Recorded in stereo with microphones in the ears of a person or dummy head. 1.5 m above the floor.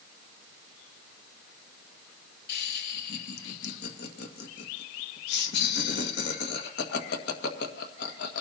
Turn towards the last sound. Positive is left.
turn(degrees=55)  # may be behind; listen again after turning